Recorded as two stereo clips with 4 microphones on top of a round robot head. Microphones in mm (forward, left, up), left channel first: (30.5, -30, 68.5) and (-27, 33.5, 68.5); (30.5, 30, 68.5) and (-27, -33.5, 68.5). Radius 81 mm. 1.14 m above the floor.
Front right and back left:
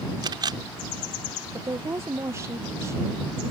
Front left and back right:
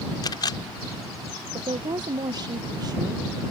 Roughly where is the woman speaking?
Behind.